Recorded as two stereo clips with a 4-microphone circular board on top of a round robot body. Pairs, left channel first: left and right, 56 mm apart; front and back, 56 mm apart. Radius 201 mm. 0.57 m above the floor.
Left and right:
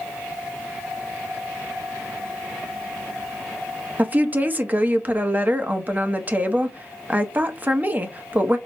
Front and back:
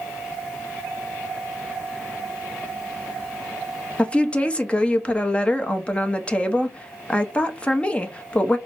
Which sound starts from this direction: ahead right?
A woman speaking, at 4.0 s.